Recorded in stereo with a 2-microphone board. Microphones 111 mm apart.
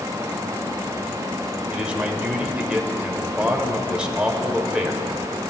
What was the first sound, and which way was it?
A man speaking, 10° right (ahead or behind).